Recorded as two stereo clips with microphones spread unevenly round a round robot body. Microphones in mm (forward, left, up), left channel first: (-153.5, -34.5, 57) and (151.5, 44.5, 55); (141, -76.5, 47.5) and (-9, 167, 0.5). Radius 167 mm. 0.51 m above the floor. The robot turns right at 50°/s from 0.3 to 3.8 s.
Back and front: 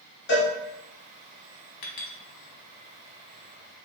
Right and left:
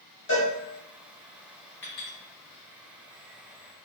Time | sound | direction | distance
0.3 | a cowbell | 115° right | 1.3 m
1.8 | a clink | 145° right | 1.2 m